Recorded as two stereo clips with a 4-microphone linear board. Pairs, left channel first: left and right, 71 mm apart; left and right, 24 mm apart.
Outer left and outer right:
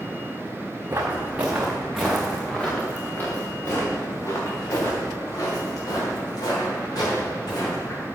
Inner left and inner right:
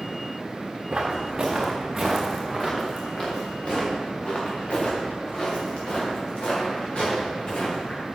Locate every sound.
0.9 s footsteps: 30° right (ahead or behind), 3 m; by 8.1 s 65° left (ahead or behind), 9.5 m